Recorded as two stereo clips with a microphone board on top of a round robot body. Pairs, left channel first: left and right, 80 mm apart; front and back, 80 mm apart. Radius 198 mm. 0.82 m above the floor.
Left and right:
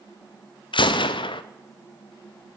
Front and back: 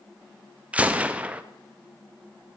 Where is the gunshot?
105° left, 0.7 m.